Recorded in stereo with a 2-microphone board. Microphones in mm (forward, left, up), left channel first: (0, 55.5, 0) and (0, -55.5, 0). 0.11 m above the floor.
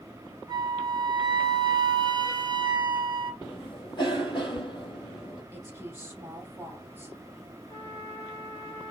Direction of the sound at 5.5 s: 20° right (ahead or behind).